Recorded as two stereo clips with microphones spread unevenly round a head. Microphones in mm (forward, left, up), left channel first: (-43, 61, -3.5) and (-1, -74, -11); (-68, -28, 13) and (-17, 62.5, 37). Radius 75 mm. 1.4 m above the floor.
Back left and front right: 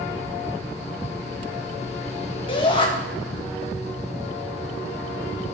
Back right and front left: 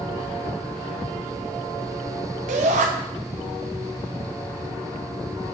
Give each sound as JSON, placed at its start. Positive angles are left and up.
{"t": 2.5, "sound": "a shout", "azimuth_deg": 45, "distance_m": 2.0}